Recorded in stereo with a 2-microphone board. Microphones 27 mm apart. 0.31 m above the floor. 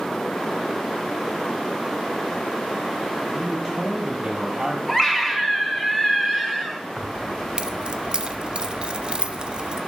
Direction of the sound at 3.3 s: 15° right (ahead or behind).